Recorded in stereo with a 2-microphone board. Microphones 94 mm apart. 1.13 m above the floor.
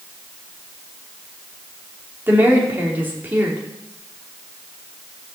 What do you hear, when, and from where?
2.3 s a woman speaking: 20° right (ahead or behind), 3.5 m